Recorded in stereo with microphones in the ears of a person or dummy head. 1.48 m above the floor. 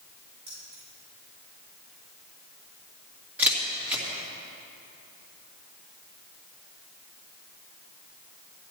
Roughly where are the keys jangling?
Right.